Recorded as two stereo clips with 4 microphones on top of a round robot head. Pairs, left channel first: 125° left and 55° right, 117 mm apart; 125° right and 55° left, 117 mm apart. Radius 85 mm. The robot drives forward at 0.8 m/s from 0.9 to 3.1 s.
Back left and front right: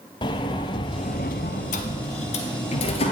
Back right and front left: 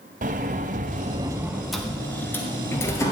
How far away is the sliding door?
About 0.5 m.